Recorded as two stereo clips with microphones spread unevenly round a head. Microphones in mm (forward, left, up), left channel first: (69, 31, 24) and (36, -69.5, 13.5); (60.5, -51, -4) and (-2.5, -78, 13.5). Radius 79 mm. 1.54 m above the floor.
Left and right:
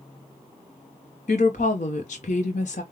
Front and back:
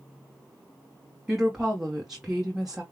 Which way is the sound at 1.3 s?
120° left.